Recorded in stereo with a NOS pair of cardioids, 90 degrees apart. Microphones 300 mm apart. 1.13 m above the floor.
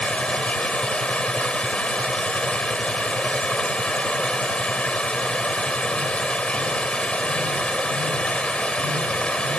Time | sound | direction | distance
0.0 | running water | 5° left | ?